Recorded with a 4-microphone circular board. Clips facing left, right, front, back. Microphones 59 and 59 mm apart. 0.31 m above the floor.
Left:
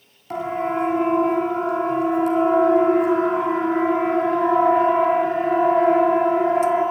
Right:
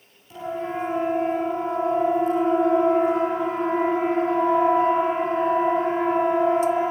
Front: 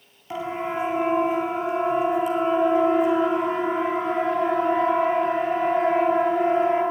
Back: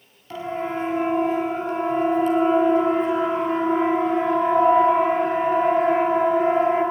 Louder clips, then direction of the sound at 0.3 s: Left 5 dB, even; 70° left.